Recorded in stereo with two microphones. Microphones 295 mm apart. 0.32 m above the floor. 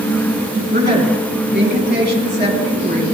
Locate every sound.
0.7 s a woman speaking: 35° right (ahead or behind), 2.5 m